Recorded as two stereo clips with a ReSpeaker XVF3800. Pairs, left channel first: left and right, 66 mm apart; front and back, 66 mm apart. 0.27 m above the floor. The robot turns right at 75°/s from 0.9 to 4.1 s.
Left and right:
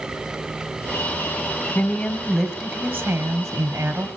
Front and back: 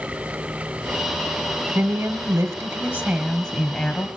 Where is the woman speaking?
145° left, 1.2 m; by 4.1 s 40° right, 1.2 m.